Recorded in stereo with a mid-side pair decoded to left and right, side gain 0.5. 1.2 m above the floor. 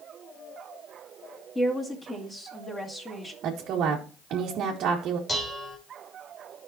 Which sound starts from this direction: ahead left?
Dishes clattering, at 5.3 s.